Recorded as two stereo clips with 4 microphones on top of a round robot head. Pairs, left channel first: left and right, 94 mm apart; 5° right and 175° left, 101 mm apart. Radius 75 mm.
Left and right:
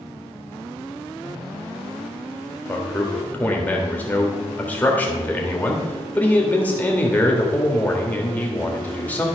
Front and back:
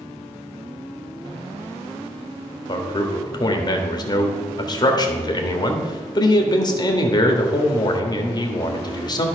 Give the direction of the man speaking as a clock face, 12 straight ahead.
11 o'clock.